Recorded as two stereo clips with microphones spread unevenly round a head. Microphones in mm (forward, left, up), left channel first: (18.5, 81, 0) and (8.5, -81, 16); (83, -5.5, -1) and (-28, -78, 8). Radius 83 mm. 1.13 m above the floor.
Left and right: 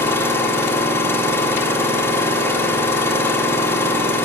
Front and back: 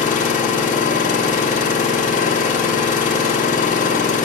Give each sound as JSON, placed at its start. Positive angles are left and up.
{"t": 0.0, "sound": "an engine running", "azimuth_deg": 10, "distance_m": 1.9}